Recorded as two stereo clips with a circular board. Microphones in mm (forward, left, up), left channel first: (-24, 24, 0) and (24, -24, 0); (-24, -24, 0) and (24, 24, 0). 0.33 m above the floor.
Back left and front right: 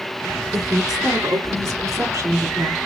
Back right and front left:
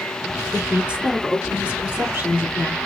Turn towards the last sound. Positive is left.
turn(degrees=-20)